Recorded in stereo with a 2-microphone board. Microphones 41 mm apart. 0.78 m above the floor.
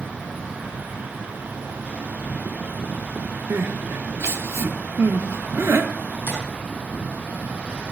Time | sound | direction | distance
0.0 | an insect | 25° left (ahead or behind) | 8 m
3.5 | crying | 80° right | 0.8 m
6.3 | tapping | 65° left (ahead or behind) | 5.5 m